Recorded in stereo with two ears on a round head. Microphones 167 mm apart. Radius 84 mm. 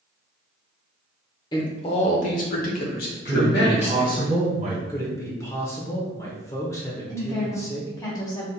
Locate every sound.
1.5 s a man speaking: 20° left (ahead or behind), 1.0 m; by 4.2 s 65° left (ahead or behind), 1.8 m
3.2 s a man speaking: 35° right (ahead or behind), 1.4 m
4.9 s a man speaking: 15° left (ahead or behind), 1.0 m
7.1 s a woman speaking: 20° left (ahead or behind), 1.9 m